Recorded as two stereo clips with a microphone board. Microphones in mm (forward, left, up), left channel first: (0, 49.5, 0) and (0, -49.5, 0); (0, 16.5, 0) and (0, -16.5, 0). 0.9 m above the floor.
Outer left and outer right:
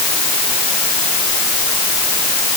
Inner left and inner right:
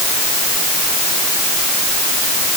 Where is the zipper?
No zipper in this recording.